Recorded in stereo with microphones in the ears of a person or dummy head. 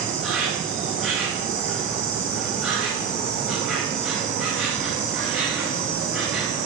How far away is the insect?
About 5 m.